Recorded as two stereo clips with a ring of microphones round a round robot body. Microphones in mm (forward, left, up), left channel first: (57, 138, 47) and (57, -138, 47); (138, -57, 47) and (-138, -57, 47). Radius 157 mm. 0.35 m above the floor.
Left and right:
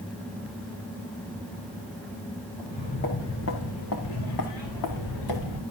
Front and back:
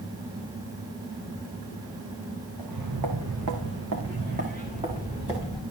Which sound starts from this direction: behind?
Footsteps, at 2.6 s.